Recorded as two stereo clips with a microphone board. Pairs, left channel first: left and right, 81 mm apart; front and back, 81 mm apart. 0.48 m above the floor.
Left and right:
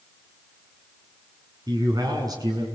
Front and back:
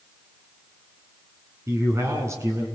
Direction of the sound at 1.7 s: 125° right.